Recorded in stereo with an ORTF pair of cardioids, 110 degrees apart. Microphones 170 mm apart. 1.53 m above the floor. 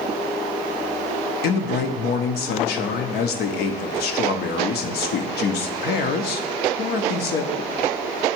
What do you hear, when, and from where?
1.4 s a man speaking: 65° left, 0.7 m